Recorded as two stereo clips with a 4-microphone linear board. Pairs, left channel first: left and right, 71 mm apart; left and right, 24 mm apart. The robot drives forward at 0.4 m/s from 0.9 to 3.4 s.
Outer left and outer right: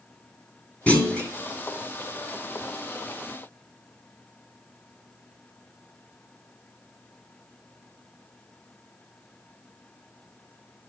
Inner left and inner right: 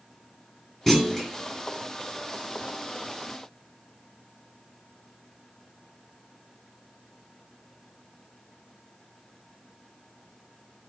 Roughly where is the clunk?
Centre.